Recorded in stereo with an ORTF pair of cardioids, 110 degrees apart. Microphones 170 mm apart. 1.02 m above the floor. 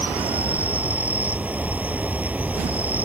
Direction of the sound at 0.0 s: 10° right.